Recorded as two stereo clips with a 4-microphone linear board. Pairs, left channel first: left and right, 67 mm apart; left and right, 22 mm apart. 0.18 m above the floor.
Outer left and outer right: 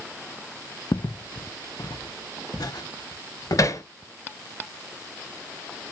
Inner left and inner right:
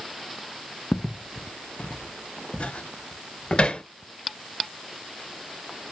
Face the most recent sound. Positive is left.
turn(degrees=55)  # may be behind; listen again after turning